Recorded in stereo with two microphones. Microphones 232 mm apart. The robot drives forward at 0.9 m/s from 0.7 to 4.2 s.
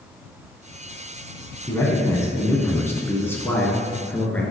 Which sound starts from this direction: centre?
A man speaking, at 1.7 s.